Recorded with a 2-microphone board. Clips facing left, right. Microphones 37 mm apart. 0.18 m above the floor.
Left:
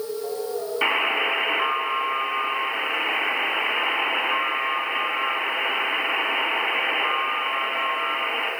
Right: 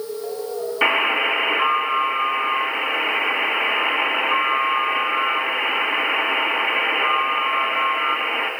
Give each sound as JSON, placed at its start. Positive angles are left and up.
{"t": 0.8, "sound": "a buzzer", "side_deg": -15, "distance_m": 1.7}